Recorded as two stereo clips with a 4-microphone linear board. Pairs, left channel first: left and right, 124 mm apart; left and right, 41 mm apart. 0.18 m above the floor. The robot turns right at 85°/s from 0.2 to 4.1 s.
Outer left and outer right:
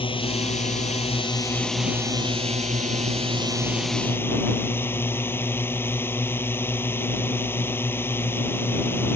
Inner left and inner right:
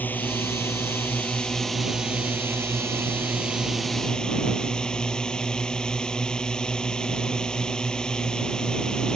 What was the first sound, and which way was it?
A drone, 45° left.